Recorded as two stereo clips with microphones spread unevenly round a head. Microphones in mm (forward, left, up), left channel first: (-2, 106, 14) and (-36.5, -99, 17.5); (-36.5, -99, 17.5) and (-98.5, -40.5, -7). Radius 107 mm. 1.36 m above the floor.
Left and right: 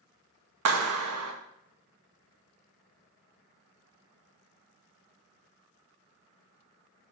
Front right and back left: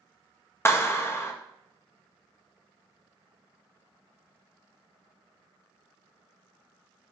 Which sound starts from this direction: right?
A clap, at 0.7 s.